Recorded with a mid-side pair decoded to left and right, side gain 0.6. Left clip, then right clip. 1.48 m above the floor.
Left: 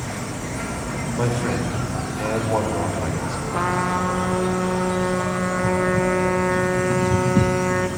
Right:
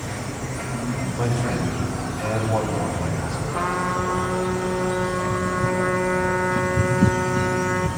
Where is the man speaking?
25° left, 6.5 m.